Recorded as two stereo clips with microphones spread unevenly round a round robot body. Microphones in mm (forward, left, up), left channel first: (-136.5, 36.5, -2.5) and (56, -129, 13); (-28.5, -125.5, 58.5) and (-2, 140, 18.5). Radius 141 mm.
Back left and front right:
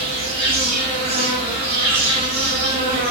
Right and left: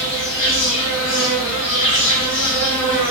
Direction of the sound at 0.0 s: 95° right.